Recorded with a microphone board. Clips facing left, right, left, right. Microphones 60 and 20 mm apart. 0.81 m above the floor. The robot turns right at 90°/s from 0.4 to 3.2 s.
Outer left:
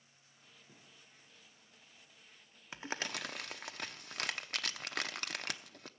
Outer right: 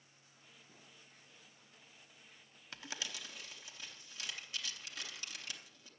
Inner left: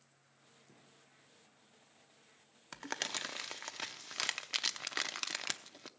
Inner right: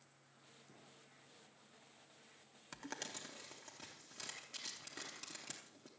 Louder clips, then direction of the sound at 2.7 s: Outer left 6 dB, inner left 9 dB; 20° left (ahead or behind).